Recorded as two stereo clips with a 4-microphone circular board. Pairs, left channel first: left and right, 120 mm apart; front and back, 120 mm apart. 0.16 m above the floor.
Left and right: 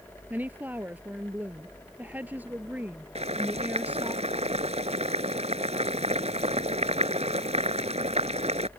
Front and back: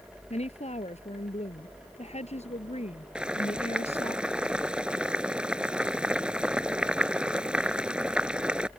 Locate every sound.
0.3 s a woman speaking: 15° right
3.1 s boiling: 100° right